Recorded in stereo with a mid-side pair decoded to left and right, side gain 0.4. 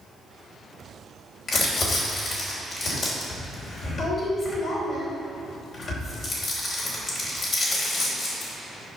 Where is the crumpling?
55° left, 3 m.